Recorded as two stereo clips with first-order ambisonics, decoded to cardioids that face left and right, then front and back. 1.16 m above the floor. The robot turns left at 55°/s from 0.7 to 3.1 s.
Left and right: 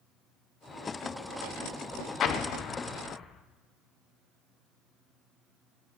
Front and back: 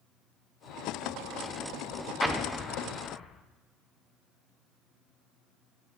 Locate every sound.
2.2 s an explosion: 90° left, 0.6 m; by 3.4 s 45° left, 0.6 m